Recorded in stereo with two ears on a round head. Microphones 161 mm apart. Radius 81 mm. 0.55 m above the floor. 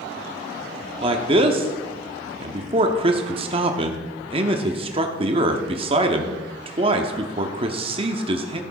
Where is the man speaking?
30° right (ahead or behind), 0.8 m.